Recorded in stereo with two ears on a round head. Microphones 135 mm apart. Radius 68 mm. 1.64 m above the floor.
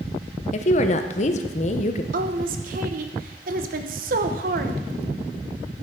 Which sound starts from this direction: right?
A woman speaking, at 2.1 s.